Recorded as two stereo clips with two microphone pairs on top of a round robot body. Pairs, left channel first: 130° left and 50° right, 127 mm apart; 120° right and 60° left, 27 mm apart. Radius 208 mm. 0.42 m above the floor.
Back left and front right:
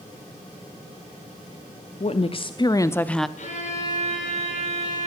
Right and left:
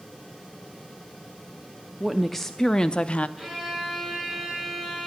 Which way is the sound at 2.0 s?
140° left.